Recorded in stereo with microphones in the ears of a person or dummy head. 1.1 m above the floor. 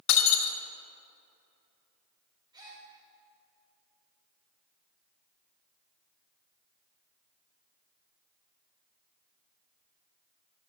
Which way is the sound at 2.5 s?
20° right (ahead or behind).